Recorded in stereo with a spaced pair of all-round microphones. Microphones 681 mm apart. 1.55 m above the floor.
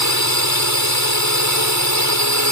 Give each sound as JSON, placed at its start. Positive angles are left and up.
{"t": 0.0, "sound": "a drone", "side_deg": -25}